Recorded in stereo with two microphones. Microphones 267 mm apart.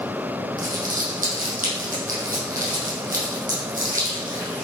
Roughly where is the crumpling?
Right.